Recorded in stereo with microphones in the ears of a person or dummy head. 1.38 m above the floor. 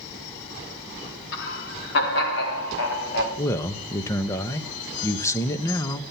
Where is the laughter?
65° left (ahead or behind), 2.5 m.